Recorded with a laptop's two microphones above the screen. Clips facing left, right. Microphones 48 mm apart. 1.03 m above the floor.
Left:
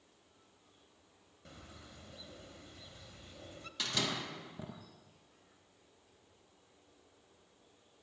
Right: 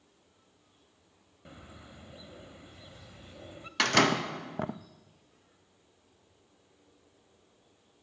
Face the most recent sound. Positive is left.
turn(degrees=-65)  # may be behind; listen again after turning